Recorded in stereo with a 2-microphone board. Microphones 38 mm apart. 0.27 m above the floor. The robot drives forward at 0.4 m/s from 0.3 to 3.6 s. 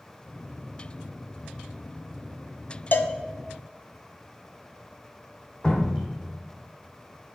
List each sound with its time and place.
2.9 s a cowbell: 60° left (ahead or behind), 0.8 m; by 3.1 s 55° left (ahead or behind), 0.8 m
5.6 s dripping: 25° left (ahead or behind), 2.5 m